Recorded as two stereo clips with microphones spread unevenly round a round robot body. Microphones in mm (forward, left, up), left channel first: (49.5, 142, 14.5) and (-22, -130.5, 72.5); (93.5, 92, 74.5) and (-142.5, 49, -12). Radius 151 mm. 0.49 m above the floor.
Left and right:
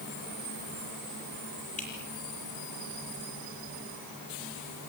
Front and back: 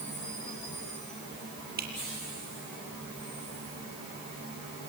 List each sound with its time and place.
1.8 s dripping: 140° left, 8 m